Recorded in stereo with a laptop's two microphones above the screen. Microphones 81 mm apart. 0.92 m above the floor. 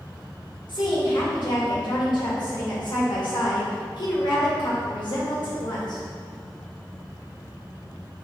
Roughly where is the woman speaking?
Left.